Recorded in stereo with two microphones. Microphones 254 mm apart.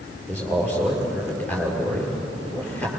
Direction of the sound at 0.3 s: 5° left (ahead or behind).